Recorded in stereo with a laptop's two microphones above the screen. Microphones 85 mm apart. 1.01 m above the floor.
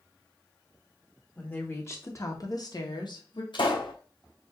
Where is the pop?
75° left (ahead or behind), 2.5 m.